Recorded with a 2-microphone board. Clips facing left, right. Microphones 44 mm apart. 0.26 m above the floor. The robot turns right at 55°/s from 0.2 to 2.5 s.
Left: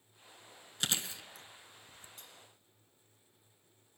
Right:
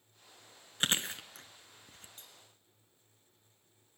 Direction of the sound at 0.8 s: 35° right (ahead or behind).